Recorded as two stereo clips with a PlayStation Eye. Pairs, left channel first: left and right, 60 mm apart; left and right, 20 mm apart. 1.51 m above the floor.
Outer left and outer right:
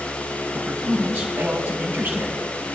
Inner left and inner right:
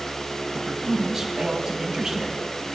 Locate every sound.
0.5 s a man speaking: 30° right (ahead or behind), 6 m